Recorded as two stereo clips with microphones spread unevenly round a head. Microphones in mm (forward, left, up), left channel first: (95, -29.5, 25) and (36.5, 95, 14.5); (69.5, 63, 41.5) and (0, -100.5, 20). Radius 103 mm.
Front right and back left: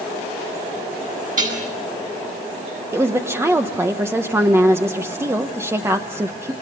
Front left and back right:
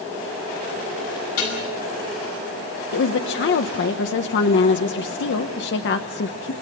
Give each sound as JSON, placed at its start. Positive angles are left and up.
{"t": 1.4, "sound": "dishes clattering", "azimuth_deg": 85, "distance_m": 8.0}
{"t": 2.9, "sound": "a woman speaking", "azimuth_deg": 45, "distance_m": 1.2}